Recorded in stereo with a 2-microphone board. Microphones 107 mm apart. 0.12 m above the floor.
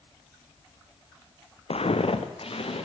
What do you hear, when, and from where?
1.7 s footsteps: 80° left, 0.9 m; by 2.9 s 65° left (ahead or behind), 2.5 m